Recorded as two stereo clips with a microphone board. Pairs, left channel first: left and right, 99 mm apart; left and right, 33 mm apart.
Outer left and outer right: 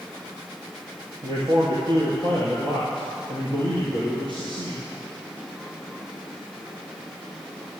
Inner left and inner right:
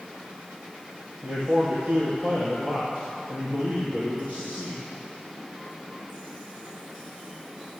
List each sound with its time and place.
1.2 s a man speaking: 55° right (ahead or behind), 3 m